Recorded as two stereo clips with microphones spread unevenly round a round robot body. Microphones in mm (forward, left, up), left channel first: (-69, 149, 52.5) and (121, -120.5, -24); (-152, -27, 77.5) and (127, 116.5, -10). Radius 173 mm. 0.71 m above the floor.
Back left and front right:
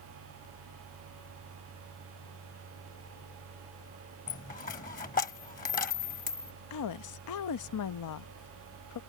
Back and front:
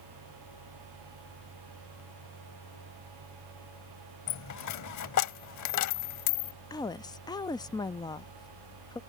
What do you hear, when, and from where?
4.3 s a dropped coin: 175° right
6.7 s a woman speaking: 115° left